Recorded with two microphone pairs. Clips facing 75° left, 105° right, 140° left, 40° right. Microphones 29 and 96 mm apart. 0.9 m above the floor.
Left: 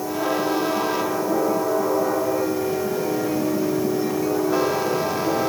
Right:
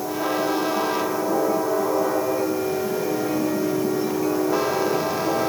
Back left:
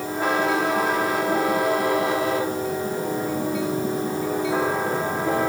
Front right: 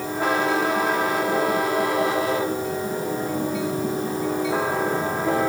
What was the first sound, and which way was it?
Only background noise.